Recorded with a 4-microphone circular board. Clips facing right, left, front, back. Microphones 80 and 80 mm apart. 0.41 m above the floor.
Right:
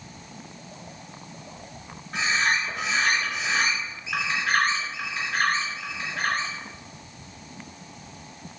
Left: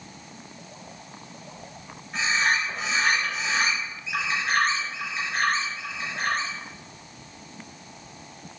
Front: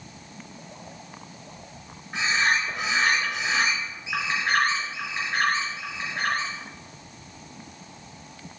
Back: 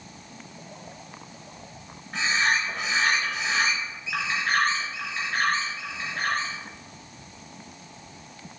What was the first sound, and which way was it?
A bird, 75° right.